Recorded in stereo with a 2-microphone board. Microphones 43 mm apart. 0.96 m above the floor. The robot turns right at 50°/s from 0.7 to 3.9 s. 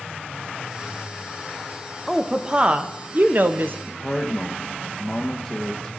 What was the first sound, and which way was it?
A woman speaking, 170° right.